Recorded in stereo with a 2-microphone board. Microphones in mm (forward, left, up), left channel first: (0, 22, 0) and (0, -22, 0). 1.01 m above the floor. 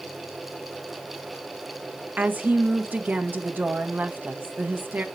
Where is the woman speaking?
45° right (ahead or behind), 1.2 m.